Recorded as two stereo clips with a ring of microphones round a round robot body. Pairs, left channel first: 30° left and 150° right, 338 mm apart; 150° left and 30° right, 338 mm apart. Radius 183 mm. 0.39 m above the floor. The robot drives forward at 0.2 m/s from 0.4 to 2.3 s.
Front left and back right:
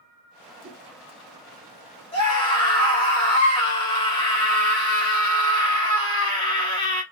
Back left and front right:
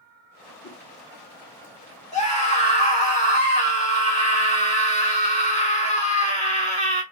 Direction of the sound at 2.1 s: 95° left.